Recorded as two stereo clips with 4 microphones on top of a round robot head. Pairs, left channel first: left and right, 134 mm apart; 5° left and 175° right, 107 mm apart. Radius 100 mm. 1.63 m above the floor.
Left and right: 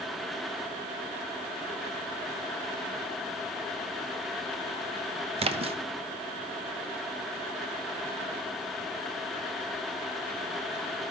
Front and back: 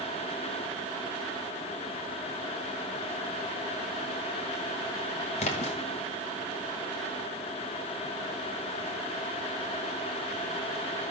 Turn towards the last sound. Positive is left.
turn(degrees=-40)